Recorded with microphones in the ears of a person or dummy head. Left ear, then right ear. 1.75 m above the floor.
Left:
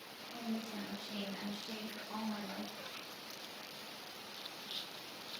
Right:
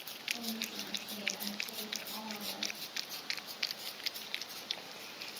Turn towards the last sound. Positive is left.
turn(degrees=80)